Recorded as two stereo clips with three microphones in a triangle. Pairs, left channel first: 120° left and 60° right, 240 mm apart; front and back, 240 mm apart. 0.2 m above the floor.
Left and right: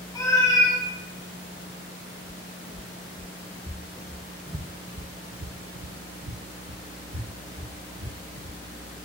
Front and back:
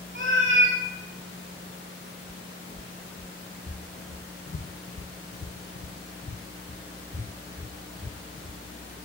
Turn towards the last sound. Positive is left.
turn(degrees=-90)